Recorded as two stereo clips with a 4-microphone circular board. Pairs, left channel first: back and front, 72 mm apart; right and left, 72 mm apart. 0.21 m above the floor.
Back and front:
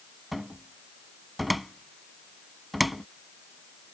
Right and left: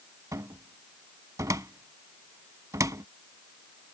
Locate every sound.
0.3 s a cupboard door: 90° left